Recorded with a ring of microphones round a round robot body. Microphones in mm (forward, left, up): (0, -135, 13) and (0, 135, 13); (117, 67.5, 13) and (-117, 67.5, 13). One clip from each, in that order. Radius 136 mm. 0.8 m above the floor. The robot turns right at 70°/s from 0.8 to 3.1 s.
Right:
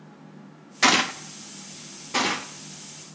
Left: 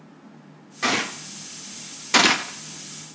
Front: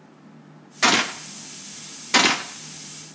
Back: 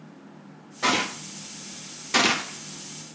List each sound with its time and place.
0.8 s a gunshot: 30° right, 0.6 m; by 3.2 s 130° left, 0.6 m